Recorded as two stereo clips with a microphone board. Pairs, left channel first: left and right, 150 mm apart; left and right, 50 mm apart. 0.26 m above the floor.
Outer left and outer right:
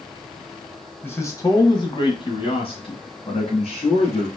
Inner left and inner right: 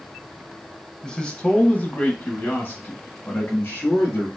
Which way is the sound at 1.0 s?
15° left (ahead or behind).